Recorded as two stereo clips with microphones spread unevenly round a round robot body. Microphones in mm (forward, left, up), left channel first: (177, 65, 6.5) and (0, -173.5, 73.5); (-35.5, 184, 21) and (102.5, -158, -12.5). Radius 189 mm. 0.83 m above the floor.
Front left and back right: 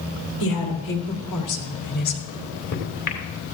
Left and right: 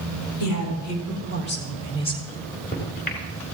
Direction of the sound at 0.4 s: 75° left.